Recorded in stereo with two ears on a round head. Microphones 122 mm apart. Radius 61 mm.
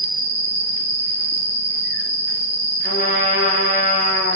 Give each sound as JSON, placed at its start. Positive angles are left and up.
{"t": 0.0, "sound": "an insect", "side_deg": -5, "distance_m": 2.5}
{"t": 2.8, "sound": "a trumpet", "side_deg": 60, "distance_m": 7.0}